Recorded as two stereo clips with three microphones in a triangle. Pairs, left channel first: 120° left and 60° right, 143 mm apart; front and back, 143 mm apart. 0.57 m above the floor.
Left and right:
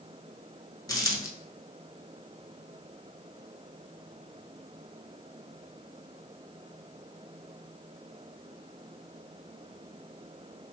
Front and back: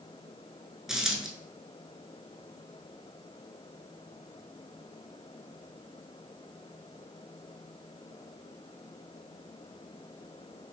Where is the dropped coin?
100° left, 0.5 m.